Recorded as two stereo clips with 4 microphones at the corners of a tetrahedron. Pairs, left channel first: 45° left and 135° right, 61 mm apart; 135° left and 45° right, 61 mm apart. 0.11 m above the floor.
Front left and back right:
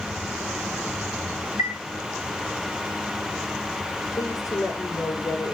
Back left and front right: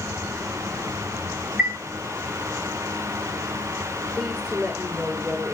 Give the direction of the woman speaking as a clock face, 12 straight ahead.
11 o'clock.